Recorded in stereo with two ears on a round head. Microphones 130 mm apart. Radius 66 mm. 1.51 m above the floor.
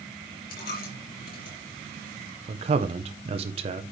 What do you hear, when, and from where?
0.5 s a dropped coin: 65° left (ahead or behind), 3.5 m
2.5 s a man speaking: 40° right (ahead or behind), 0.9 m